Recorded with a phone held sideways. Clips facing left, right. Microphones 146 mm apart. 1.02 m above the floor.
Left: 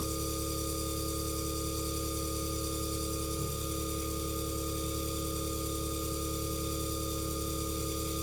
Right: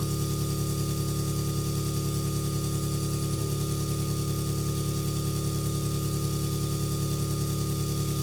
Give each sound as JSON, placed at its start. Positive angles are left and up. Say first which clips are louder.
{"t": 0.0, "sound": "an engine running", "louder": "right 4 dB", "side_deg": -80, "distance_m": 3.0}